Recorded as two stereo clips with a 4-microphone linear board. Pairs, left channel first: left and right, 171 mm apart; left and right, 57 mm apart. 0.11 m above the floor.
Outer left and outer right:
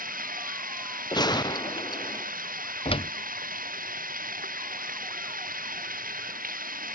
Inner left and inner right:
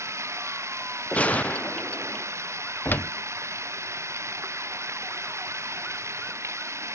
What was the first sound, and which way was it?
Running water, 55° right (ahead or behind).